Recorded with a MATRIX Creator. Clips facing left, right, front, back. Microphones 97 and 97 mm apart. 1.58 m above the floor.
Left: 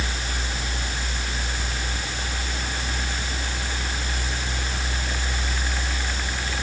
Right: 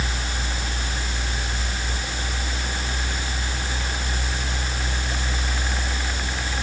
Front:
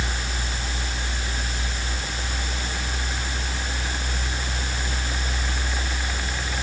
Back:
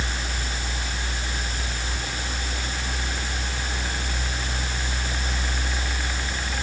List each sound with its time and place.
Only background noise.